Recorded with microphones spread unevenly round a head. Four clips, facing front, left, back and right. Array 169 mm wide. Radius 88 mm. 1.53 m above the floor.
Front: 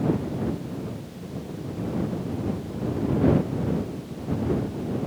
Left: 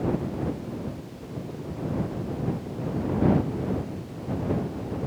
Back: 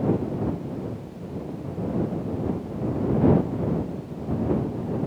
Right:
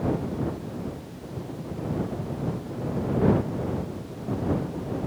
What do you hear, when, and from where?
Only background noise.